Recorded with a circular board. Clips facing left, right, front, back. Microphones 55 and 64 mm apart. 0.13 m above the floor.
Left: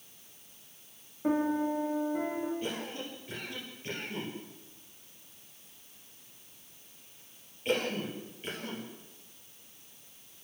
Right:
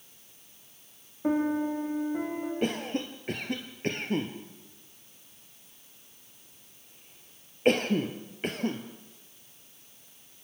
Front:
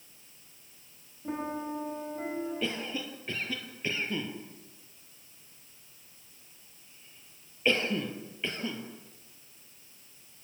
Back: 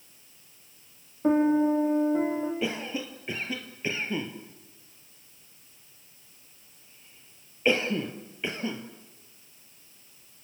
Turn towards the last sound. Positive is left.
turn(degrees=-105)